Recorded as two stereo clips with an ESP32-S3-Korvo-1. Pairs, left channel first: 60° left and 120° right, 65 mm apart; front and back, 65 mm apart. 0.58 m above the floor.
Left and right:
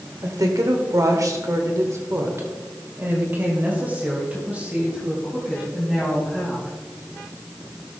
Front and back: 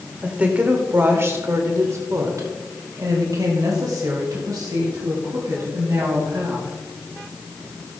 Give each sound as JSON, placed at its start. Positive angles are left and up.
{"t": 0.2, "sound": "a woman speaking", "azimuth_deg": -110, "distance_m": 1.8}